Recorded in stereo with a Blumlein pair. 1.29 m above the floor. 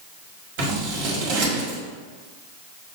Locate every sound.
0.6 s scissors: 45° right, 1.6 m